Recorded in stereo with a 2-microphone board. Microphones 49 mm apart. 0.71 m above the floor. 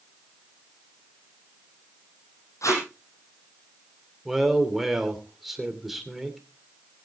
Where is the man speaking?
5° right (ahead or behind), 2.5 m.